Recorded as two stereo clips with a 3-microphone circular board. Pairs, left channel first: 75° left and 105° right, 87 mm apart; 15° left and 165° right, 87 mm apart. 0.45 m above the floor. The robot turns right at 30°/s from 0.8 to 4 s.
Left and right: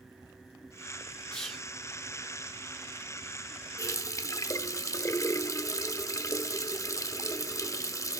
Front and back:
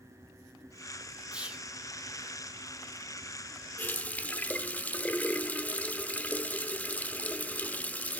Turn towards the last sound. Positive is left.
turn(degrees=75)